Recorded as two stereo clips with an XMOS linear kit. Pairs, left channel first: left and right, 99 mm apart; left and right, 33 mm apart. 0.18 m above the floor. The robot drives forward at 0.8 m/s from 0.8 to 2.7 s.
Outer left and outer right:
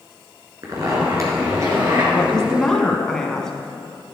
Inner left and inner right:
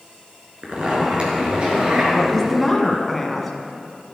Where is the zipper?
40° right (ahead or behind), 3 m; by 2.0 s 30° right (ahead or behind), 3.5 m.